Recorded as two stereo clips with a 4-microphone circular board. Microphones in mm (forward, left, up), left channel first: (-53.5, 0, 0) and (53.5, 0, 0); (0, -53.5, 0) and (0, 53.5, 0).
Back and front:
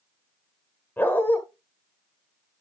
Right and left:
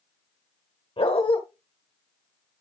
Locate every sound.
1.0 s a dog barking: 110° right, 1.4 m